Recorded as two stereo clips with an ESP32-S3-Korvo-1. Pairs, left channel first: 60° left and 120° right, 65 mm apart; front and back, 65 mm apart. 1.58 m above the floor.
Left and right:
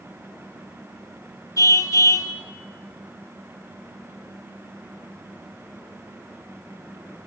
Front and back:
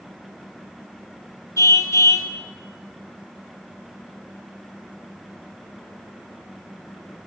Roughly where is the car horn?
Ahead left.